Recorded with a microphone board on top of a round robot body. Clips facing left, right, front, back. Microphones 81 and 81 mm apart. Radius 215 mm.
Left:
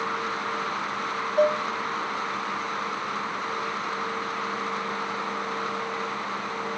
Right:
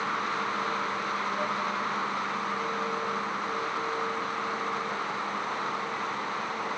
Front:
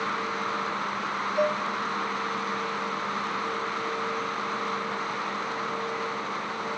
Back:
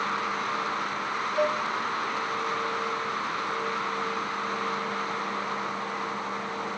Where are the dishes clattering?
85° left, 1.2 m.